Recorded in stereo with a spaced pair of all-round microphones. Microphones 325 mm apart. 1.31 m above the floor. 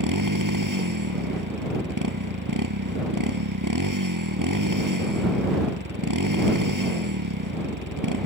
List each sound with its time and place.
0.0 s a motorcycle: 70° right (ahead or behind)